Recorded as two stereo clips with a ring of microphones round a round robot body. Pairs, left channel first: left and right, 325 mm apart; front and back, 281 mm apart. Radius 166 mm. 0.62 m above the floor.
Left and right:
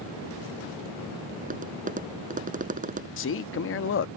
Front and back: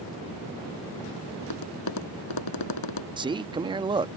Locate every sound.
1.4 s tapping: 20° right
3.2 s a man speaking: 115° left